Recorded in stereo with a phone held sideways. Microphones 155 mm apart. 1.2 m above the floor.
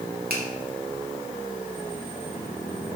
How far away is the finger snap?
About 2 m.